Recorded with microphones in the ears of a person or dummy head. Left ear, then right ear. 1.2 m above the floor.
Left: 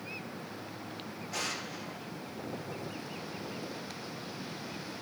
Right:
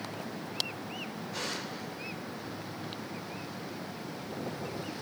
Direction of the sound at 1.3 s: 45° left (ahead or behind).